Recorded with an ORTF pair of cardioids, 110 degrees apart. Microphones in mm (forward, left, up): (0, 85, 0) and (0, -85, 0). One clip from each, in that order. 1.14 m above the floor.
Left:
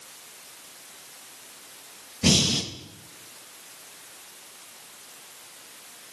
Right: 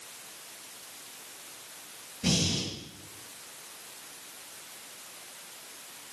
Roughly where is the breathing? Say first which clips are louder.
Left 7 dB; ahead left.